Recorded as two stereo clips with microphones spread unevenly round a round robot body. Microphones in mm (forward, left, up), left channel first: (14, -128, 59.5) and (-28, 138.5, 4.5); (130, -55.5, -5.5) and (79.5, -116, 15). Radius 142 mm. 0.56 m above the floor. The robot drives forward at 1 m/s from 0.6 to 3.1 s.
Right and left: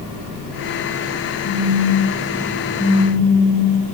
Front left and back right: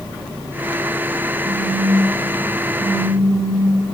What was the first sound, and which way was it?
A phone buzzing, 130° right.